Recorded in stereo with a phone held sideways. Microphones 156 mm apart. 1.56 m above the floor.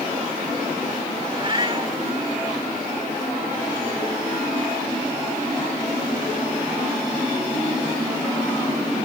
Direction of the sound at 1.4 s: 35° right (ahead or behind).